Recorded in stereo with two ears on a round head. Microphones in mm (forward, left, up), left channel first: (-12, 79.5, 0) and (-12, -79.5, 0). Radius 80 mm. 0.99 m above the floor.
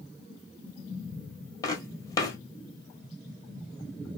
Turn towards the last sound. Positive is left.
turn(degrees=20)  # may be behind; listen again after turning